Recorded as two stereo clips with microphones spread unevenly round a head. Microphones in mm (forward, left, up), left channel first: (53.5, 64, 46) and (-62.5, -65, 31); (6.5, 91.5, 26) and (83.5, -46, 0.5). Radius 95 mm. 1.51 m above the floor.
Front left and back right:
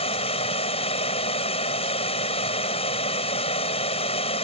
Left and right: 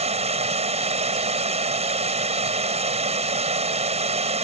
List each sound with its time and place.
0.0 s running water: 10° right